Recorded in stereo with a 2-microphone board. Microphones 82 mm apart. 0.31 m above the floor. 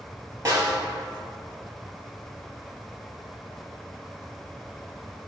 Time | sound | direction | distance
0.5 | a snare drum | 35° right (ahead or behind) | 2.0 m